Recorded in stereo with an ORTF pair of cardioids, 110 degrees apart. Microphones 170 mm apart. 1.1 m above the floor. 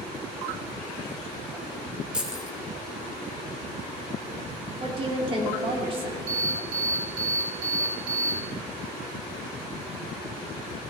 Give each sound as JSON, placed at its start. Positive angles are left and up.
{"t": 2.1, "sound": "keys jangling", "azimuth_deg": -5, "distance_m": 3.0}
{"t": 4.8, "sound": "a woman speaking", "azimuth_deg": -35, "distance_m": 3.0}
{"t": 6.3, "sound": "an alarm", "azimuth_deg": -60, "distance_m": 3.5}